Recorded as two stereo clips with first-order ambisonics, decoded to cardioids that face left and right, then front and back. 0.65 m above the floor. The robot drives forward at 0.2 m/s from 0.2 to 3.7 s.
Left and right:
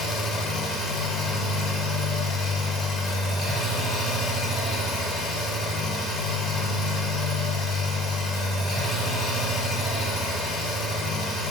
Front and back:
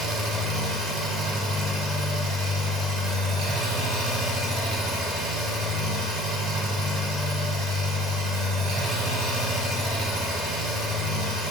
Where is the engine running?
135° left, 0.8 m; by 11.5 s 155° left, 1.3 m.